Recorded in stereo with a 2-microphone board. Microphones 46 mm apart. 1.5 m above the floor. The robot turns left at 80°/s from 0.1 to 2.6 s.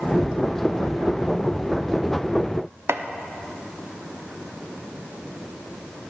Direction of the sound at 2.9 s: 70° right (ahead or behind).